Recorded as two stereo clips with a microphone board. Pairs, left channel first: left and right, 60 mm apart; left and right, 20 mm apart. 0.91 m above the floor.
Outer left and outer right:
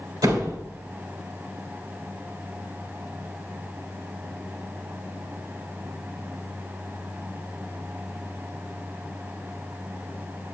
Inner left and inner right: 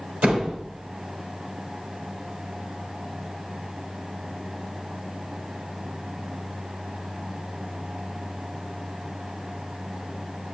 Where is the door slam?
85° right, 3 m.